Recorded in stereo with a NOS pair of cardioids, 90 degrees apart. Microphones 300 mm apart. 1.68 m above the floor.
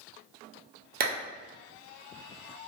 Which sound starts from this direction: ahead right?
A clap, at 1.0 s.